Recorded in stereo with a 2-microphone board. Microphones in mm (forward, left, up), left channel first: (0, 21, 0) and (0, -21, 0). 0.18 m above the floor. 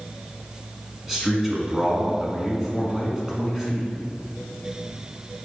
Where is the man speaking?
10° right (ahead or behind), 1.7 m.